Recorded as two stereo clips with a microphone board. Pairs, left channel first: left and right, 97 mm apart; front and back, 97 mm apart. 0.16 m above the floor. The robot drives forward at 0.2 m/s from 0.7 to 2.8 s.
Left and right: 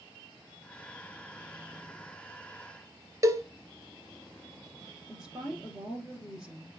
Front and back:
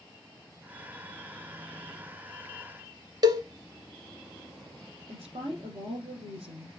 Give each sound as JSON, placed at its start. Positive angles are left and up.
{"t": 3.2, "sound": "a cowbell", "azimuth_deg": -140, "distance_m": 1.0}
{"t": 5.1, "sound": "a woman speaking", "azimuth_deg": -170, "distance_m": 6.0}